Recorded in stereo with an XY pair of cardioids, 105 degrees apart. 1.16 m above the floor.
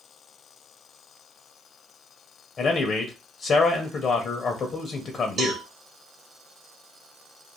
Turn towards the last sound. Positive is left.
turn(degrees=-60)